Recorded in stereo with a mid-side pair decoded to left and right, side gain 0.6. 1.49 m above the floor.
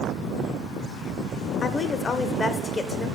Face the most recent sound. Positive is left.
turn(degrees=30)